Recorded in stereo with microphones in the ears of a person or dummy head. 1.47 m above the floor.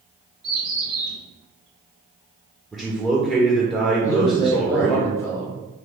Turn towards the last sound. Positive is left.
turn(degrees=15)  # may be behind; listen again after turning